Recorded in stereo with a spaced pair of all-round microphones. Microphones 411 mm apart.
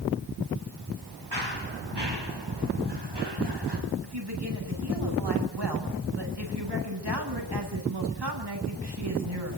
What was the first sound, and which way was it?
Running footsteps, 80° right.